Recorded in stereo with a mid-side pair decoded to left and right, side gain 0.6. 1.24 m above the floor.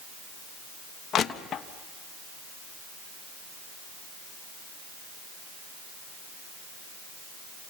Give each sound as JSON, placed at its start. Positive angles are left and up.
{"t": 1.1, "sound": "crushing", "azimuth_deg": 45, "distance_m": 1.3}